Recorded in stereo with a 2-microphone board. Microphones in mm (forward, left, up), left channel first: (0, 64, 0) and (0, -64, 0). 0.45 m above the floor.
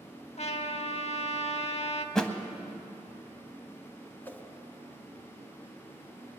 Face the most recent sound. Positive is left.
turn(degrees=15)  # may be behind; listen again after turning